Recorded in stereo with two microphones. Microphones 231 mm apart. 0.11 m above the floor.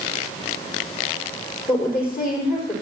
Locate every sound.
1.7 s a woman speaking: 40° left (ahead or behind), 5 m